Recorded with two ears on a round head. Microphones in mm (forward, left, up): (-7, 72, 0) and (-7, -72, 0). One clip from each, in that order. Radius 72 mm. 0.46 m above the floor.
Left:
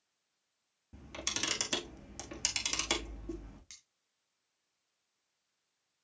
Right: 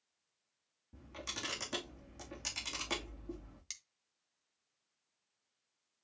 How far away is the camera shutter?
About 4 m.